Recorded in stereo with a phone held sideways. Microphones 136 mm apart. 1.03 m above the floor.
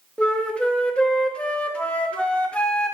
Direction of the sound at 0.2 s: 10° left (ahead or behind).